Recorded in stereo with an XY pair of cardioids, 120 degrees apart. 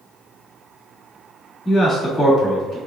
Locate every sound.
1.6 s a man speaking: 15° left, 2.0 m